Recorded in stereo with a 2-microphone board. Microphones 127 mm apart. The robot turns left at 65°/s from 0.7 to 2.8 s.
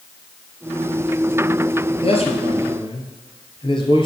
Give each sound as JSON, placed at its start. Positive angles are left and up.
{"t": 2.0, "sound": "a man speaking", "azimuth_deg": 110, "distance_m": 2.0}